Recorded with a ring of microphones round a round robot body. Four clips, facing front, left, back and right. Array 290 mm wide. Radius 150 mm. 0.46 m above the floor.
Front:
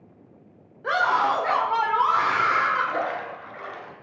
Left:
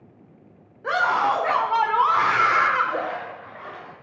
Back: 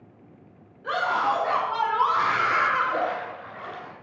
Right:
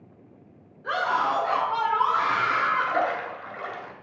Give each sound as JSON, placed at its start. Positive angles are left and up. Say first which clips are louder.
{"t": 0.8, "sound": "a scream", "louder": "left 4 dB, front 3 dB", "azimuth_deg": 50, "distance_m": 2.5}
{"t": 2.8, "sound": "a splash", "louder": "even, back 1 dB", "azimuth_deg": -85, "distance_m": 2.0}